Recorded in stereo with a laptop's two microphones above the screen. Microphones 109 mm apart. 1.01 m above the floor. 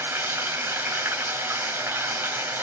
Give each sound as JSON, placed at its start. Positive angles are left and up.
{"t": 0.0, "sound": "running water", "side_deg": -20, "distance_m": 1.0}